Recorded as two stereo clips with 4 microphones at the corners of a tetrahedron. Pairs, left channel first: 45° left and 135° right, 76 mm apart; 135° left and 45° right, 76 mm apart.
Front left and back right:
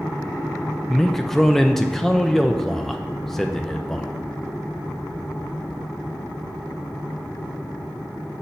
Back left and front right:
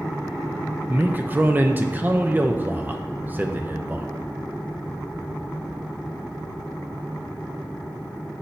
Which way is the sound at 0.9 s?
35° right.